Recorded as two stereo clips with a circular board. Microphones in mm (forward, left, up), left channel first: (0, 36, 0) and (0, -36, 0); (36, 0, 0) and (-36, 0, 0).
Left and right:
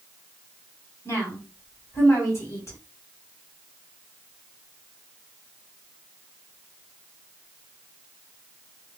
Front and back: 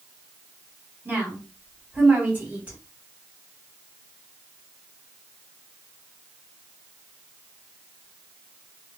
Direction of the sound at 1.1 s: 120° left.